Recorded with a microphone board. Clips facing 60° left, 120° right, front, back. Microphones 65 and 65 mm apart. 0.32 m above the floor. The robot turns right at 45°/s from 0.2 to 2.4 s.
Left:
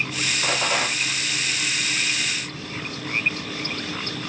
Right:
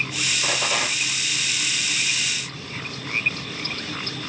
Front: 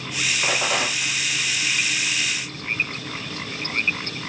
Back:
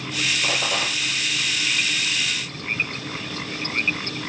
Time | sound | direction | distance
0.4 | a rattle | straight ahead | 2 m